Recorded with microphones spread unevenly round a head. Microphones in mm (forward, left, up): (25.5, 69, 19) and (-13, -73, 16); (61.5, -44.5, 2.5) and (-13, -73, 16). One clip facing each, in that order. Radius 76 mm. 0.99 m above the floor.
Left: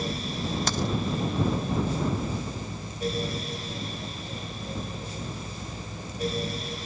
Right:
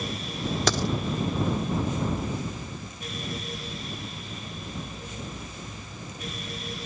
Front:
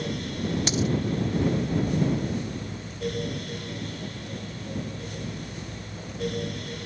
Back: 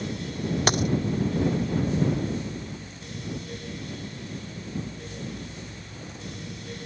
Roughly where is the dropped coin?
Behind right.